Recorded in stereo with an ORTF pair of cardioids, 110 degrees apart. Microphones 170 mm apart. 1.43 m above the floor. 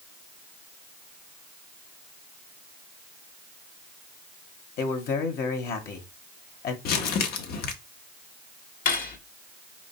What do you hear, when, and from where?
4.8 s a man speaking: 65° left, 1.6 m
6.8 s crumpling: 65° left, 1.1 m
8.8 s cutlery clinking: 60° left, 1.6 m